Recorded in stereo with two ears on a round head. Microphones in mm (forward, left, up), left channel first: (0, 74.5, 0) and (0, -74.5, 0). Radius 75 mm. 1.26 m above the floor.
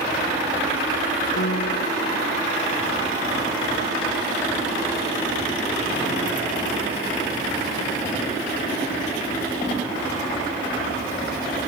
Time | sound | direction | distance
1.4 | a piano | 65° left (ahead or behind) | ?